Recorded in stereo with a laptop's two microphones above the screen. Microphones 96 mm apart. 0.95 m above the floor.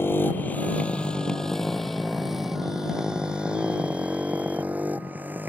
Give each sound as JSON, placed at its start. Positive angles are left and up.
{"t": 0.0, "sound": "a motorcycle", "side_deg": 25}